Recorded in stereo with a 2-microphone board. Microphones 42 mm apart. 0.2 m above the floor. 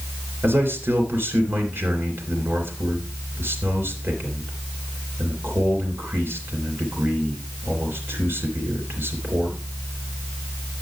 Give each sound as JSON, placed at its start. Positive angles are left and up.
{"t": 0.4, "sound": "a man speaking", "side_deg": -65, "distance_m": 3.5}